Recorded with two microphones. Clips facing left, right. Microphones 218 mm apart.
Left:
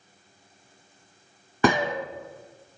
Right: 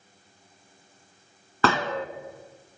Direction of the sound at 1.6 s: 15° left (ahead or behind).